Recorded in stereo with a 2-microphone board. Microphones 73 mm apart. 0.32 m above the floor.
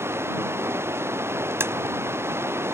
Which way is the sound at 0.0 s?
35° right (ahead or behind).